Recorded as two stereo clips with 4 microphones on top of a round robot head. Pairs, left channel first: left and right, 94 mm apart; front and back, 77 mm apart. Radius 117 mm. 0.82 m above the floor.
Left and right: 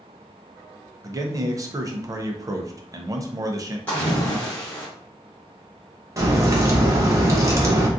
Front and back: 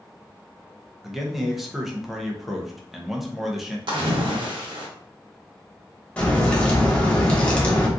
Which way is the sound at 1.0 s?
95° right.